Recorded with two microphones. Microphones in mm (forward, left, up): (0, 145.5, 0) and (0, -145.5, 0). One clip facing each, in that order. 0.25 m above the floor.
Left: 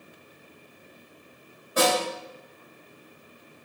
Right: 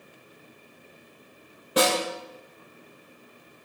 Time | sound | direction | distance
1.8 | a snare drum | 80° right | 3.5 m